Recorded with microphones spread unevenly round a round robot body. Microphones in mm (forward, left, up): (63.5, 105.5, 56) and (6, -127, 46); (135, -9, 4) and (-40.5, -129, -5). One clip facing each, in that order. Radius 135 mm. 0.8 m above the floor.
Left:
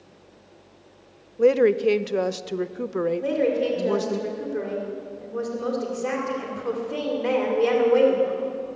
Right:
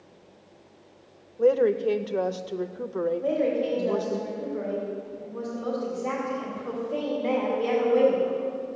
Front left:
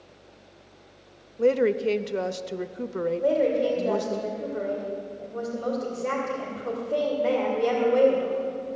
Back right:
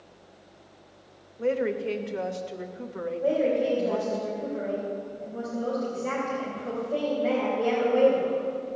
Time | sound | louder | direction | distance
1.4 | a woman speaking | left 3 dB, front left 5 dB | 30° left | 0.5 m
3.2 | a woman speaking | left 3 dB, even | 100° left | 2.5 m